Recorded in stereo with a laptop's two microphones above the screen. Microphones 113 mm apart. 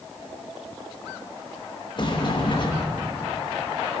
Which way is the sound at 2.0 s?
45° left (ahead or behind).